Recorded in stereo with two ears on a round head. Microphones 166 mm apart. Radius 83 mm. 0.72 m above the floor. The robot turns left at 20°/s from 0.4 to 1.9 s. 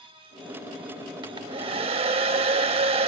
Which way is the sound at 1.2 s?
25° right (ahead or behind).